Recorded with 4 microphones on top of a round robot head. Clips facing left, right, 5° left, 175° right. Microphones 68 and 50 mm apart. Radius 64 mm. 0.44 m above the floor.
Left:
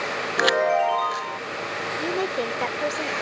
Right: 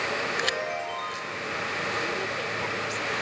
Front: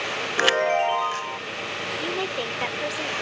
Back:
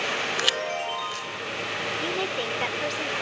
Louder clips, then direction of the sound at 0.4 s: Left 10 dB, front 7 dB; 60° left.